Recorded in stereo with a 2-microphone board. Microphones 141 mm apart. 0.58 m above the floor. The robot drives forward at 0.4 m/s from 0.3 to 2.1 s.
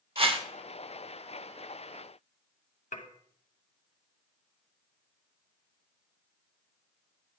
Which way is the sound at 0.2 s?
45° right (ahead or behind).